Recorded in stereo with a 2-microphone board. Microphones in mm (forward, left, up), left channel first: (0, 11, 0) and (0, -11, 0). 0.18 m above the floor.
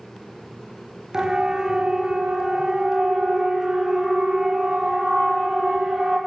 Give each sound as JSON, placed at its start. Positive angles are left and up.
{"t": 1.1, "sound": "a siren", "side_deg": -35, "distance_m": 4.5}